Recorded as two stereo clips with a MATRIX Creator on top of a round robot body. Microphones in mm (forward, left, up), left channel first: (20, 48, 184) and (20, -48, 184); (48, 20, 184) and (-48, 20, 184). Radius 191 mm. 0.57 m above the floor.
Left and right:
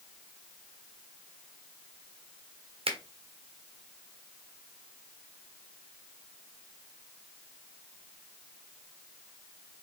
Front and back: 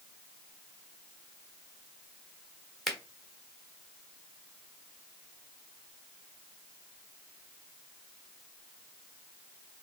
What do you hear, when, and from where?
2.9 s a finger snap: 90° right, 1.3 m